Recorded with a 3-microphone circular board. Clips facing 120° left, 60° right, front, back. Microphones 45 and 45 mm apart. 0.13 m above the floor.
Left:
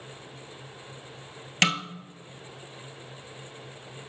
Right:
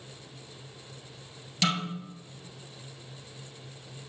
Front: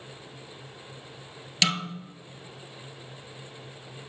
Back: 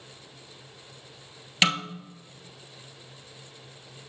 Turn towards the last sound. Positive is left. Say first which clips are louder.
# left 4 dB, back 3 dB
turn(degrees=120)